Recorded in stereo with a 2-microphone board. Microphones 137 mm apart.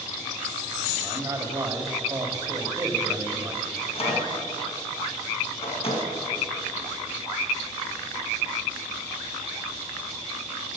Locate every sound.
1.0 s a man speaking: 25° right (ahead or behind), 1.2 m
3.8 s a microwave: 50° left (ahead or behind), 2 m